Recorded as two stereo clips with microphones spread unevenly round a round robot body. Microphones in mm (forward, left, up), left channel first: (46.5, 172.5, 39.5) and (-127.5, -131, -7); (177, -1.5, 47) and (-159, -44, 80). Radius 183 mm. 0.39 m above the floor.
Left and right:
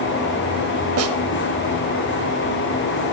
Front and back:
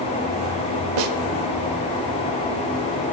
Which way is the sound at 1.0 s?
160° right.